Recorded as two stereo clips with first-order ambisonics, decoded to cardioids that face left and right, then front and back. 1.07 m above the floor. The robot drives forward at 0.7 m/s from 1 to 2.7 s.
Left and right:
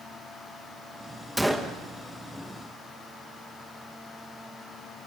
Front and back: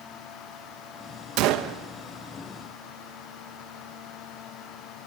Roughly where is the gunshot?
Behind.